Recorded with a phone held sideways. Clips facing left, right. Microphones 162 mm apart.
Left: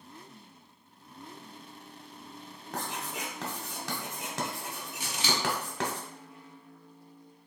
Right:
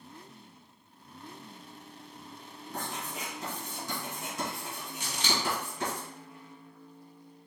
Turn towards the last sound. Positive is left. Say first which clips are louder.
# left 1 dB
turn(degrees=10)  # may be behind; listen again after turning